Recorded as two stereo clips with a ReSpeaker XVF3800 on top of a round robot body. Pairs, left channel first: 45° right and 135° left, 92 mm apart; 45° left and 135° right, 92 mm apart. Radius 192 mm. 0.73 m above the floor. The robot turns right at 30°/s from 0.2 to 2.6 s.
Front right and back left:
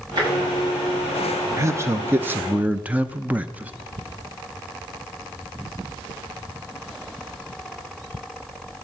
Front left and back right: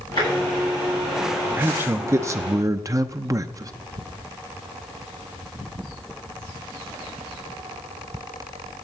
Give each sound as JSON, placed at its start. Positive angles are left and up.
{"t": 0.2, "sound": "tapping", "azimuth_deg": 90, "distance_m": 8.5}
{"t": 1.6, "sound": "a man speaking", "azimuth_deg": 170, "distance_m": 0.8}